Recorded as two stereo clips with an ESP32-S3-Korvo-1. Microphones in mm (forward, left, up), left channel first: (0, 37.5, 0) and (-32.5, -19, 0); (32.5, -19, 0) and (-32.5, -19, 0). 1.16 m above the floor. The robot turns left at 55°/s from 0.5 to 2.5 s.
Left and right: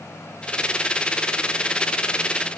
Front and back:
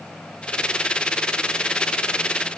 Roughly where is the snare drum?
I don't hear a snare drum.